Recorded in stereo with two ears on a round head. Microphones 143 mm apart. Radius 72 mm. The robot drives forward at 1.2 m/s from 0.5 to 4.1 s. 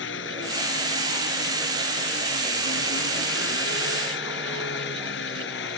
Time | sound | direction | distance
0.0 | an engine running | 80° left | ?